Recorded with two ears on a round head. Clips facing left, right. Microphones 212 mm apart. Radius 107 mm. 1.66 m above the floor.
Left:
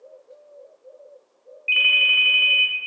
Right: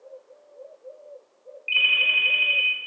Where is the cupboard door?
I don't hear a cupboard door.